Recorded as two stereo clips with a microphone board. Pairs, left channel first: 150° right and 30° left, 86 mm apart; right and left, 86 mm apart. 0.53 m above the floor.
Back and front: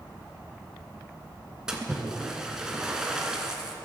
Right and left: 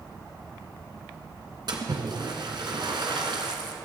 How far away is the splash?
About 1.7 m.